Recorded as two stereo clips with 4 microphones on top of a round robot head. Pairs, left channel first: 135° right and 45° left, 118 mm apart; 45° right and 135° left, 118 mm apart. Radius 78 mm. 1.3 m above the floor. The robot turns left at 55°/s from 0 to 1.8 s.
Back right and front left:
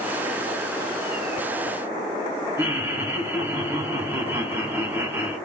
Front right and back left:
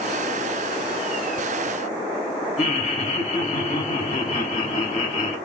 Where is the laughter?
25° right, 1.5 m.